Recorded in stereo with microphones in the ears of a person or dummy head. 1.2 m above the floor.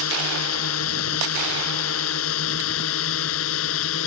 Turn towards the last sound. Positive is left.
turn(degrees=75)  # may be behind; listen again after turning